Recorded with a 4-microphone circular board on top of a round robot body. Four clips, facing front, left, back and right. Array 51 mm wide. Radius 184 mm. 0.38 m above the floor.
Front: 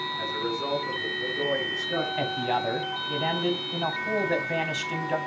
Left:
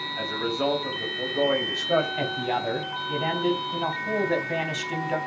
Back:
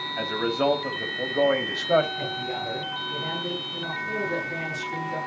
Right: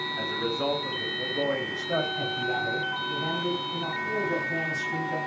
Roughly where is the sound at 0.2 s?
Behind.